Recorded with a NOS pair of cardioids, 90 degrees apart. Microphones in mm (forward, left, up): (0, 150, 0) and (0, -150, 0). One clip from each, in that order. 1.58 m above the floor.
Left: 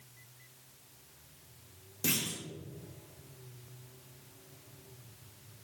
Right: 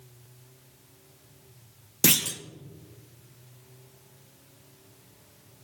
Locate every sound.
2.0 s a clunk: 65° right, 0.6 m